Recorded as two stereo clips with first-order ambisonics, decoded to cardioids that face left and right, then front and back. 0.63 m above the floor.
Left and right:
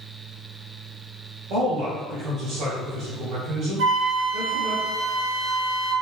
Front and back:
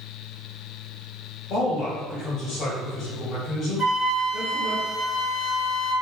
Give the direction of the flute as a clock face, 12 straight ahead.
2 o'clock.